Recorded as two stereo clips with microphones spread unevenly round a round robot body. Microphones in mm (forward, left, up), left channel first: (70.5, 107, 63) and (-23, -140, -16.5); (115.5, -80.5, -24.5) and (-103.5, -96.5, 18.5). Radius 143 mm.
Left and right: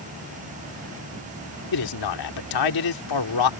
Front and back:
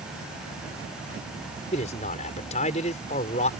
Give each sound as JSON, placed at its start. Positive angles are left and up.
{"t": 1.7, "sound": "a man speaking", "azimuth_deg": 70}